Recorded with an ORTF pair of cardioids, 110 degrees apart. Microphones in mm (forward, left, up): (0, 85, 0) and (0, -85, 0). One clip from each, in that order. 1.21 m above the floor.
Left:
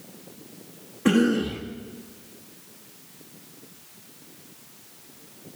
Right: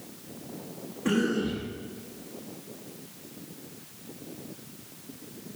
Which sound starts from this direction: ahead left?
A cough, at 1.1 s.